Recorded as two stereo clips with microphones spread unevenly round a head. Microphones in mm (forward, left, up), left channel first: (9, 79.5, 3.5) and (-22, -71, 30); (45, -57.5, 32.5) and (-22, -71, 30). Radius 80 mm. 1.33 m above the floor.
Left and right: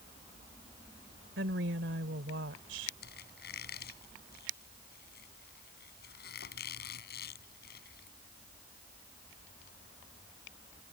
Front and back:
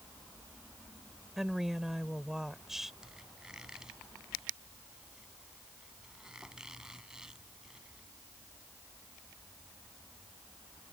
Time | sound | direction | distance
1.4 | a woman speaking | 85° right | ?
3.0 | a squeak | 105° left | ?